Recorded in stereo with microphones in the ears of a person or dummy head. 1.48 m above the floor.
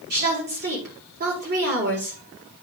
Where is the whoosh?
I don't hear a whoosh.